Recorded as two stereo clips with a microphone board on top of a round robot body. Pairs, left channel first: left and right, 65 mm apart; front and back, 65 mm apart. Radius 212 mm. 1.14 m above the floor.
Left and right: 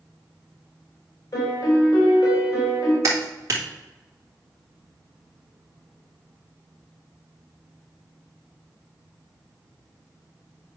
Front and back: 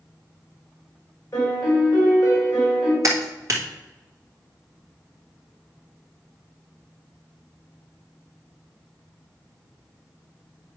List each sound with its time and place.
1.3 s a piano: 50° left, 3 m
3.0 s a clap: 140° right, 1.6 m